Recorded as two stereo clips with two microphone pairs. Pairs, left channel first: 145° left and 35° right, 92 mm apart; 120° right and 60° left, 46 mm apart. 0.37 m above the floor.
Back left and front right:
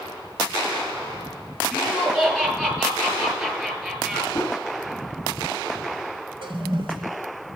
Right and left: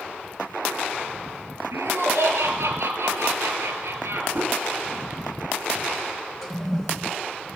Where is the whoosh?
85° left, 1.2 m.